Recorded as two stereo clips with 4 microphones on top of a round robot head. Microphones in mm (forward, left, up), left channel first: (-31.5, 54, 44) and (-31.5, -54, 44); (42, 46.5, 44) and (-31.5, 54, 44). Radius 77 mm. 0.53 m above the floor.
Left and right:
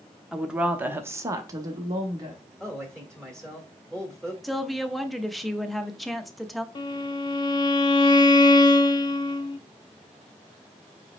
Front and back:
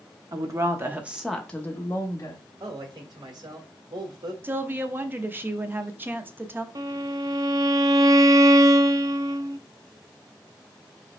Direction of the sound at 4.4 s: Straight behind.